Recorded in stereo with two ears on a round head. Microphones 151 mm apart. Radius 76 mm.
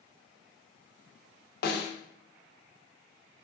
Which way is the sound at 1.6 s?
65° left (ahead or behind).